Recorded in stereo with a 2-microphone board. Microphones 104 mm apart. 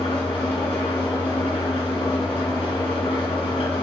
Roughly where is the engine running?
Left.